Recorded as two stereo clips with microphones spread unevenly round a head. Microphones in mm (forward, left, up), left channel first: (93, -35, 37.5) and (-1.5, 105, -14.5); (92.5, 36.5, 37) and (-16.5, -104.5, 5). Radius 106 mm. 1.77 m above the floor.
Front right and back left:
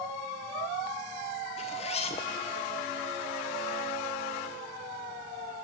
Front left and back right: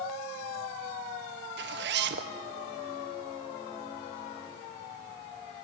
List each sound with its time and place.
1.6 s a zipper: 105° right, 1.1 m